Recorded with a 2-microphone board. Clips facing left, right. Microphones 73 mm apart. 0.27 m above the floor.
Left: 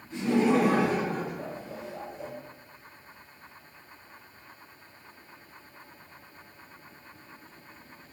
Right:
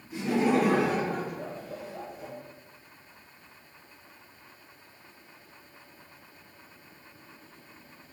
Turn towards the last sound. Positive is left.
turn(degrees=35)  # may be behind; listen again after turning